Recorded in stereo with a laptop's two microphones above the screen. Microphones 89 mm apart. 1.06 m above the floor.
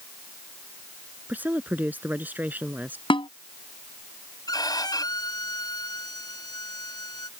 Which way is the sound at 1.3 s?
20° right (ahead or behind).